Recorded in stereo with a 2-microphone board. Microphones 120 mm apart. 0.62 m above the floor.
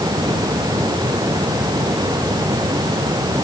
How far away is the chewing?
No chewing in this recording.